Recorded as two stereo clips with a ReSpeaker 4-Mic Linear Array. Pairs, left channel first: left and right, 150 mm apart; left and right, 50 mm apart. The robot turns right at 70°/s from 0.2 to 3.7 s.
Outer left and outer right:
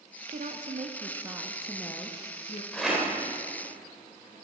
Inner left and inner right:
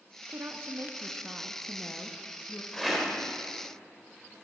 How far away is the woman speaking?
About 0.7 m.